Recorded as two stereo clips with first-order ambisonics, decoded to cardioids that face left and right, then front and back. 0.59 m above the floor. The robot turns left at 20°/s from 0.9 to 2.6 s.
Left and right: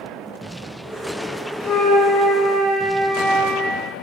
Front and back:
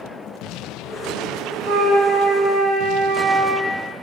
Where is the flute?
Straight behind, 1.6 m; by 3.7 s 160° left, 1.6 m.